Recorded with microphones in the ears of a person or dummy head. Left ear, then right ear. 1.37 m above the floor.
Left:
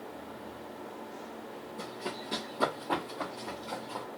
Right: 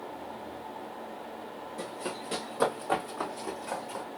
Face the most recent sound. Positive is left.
turn(degrees=-50)  # may be behind; listen again after turning